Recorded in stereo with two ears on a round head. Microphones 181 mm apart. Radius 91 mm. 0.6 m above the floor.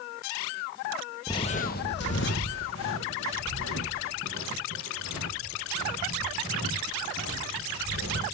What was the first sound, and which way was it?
Footsteps, 15° left (ahead or behind).